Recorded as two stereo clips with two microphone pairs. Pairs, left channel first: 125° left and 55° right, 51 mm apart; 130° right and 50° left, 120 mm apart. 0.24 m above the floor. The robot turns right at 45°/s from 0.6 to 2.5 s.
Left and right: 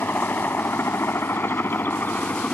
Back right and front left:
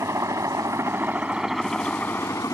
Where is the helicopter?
105° left; by 2.5 s 175° left.